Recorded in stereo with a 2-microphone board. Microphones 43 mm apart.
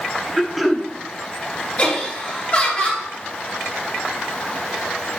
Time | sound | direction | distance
0.4 | throat clearing | 5° right (ahead or behind) | 0.5 m
1.8 | laughter | 30° left (ahead or behind) | 2 m